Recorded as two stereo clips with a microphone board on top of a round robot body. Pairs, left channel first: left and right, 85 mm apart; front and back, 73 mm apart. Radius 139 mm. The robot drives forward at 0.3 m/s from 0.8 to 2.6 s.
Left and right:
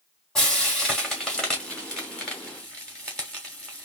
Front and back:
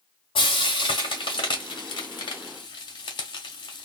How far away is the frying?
About 1.4 m.